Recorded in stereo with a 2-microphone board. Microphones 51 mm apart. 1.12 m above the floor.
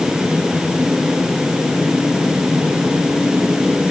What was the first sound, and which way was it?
Only background noise.